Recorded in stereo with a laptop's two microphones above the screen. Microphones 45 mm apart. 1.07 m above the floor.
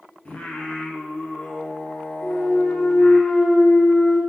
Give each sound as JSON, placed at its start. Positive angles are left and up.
{"t": 0.2, "sound": "singing", "side_deg": 30, "distance_m": 0.5}
{"t": 2.2, "sound": "a clunk", "side_deg": 65, "distance_m": 1.9}